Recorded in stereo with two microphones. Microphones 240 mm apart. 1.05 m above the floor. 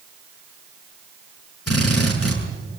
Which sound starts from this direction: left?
A drill, at 1.7 s.